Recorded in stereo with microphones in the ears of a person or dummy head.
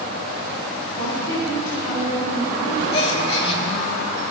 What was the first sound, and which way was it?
A woman speaking, 20° left (ahead or behind).